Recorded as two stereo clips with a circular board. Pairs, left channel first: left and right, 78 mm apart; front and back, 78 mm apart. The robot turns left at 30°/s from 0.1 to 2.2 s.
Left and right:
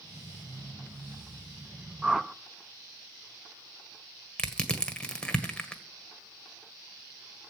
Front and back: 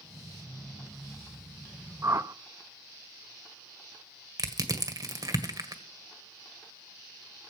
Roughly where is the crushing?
Behind.